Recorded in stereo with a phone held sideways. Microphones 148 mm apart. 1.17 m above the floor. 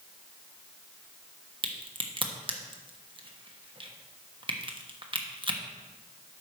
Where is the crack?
35° right (ahead or behind), 1.1 m.